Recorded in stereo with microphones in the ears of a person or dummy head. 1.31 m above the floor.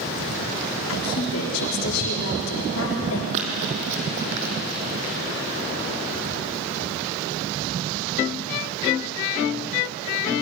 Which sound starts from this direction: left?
A woman speaking, at 0.9 s.